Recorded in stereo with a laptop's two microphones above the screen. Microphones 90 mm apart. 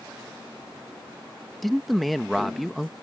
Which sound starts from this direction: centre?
A man speaking, at 1.6 s.